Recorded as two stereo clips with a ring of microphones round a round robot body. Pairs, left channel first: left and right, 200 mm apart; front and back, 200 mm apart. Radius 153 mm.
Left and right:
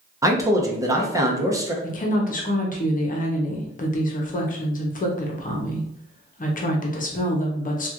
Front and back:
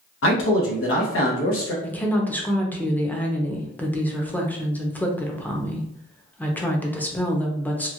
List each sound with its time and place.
0.2 s a man speaking: 15° right, 0.9 m
1.8 s a woman speaking: 80° left, 0.8 m